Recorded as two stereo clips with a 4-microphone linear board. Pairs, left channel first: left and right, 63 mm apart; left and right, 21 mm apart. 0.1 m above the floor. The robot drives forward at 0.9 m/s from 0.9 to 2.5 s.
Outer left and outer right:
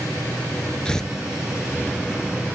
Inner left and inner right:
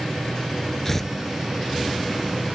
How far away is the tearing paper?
About 0.9 m.